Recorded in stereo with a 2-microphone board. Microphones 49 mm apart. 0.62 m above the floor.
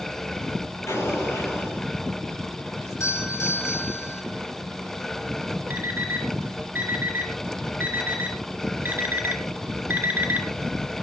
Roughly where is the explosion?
Left.